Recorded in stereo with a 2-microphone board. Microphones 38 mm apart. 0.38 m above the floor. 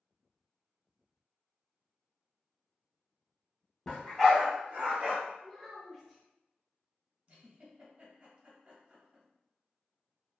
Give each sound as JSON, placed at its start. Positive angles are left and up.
{"t": 3.9, "sound": "a dog barking", "side_deg": 15, "distance_m": 0.9}
{"t": 5.4, "sound": "a child speaking", "side_deg": 5, "distance_m": 0.6}
{"t": 7.3, "sound": "a giggle", "side_deg": -40, "distance_m": 1.1}